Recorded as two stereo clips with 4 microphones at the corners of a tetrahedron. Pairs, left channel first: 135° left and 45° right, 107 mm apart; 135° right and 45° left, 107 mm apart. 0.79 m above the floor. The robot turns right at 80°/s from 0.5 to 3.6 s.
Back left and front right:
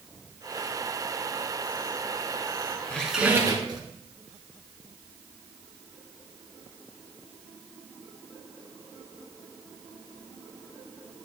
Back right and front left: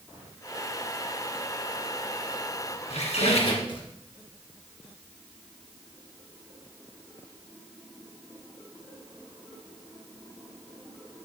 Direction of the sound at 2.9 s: 150° right.